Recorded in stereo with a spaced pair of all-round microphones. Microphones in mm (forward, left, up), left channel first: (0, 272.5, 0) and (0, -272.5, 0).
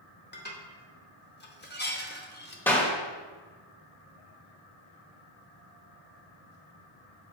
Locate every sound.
0.3 s dishes clattering: 20° left (ahead or behind), 0.8 m
2.7 s a clap: 5° left (ahead or behind), 1.5 m